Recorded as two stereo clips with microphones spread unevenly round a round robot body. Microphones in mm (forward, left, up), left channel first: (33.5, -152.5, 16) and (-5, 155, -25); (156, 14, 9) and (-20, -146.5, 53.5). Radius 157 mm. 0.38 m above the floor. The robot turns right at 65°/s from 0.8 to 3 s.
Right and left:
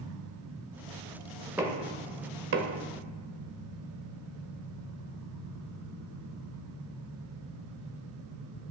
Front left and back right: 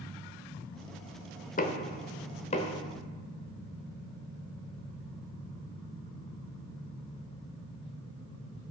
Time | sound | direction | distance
1.6 | knocking | 20° left | 0.8 m